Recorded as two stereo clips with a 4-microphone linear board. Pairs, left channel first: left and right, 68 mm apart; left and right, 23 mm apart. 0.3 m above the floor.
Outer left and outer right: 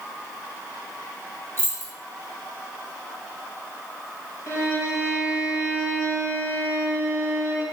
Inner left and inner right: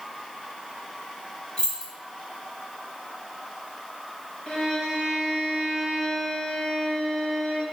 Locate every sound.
1.6 s keys jangling: 40° left (ahead or behind), 1.5 m
4.5 s a violin: 50° left (ahead or behind), 1.0 m